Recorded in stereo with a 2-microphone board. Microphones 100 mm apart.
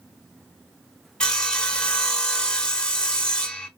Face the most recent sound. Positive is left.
turn(degrees=10)  # may be behind; listen again after turning